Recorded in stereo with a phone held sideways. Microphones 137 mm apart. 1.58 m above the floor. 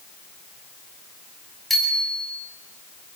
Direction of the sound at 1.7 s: Centre (ahead or behind).